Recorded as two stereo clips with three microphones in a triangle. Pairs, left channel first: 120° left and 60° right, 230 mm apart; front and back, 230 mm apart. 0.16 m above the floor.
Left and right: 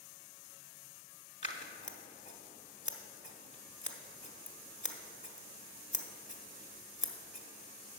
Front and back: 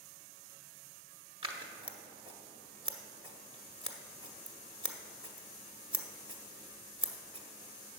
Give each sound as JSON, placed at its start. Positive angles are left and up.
{"t": 1.4, "sound": "scissors", "azimuth_deg": 135, "distance_m": 0.9}